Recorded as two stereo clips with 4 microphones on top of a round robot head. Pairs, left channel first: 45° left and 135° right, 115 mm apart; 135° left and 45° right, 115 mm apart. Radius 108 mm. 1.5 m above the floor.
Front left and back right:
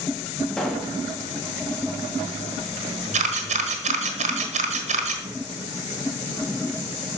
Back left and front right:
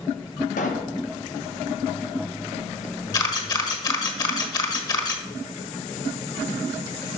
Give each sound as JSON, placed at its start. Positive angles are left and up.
{"t": 0.6, "sound": "a pop", "azimuth_deg": 130, "distance_m": 0.8}
{"t": 3.1, "sound": "a camera shutter", "azimuth_deg": -165, "distance_m": 1.3}